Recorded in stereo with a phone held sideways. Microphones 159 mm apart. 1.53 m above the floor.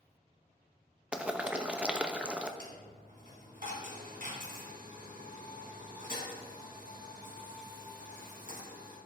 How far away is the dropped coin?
About 3.5 m.